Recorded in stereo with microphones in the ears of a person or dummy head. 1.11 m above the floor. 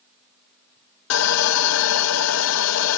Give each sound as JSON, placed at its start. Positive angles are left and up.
{"t": 1.1, "sound": "sawing", "side_deg": 80, "distance_m": 0.9}